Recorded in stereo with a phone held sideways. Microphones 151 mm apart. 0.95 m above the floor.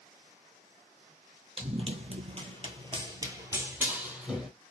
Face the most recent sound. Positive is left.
turn(degrees=-5)  # may be behind; listen again after turning